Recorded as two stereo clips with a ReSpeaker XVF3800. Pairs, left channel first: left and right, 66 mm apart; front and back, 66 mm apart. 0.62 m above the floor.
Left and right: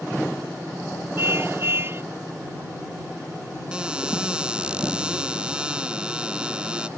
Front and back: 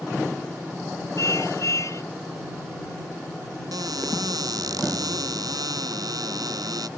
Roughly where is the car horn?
Ahead right.